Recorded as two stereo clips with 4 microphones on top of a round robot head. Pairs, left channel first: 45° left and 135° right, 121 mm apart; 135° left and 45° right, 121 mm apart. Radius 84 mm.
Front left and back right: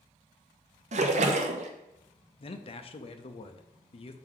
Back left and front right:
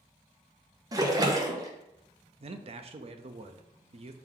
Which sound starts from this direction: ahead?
A man speaking, at 2.4 s.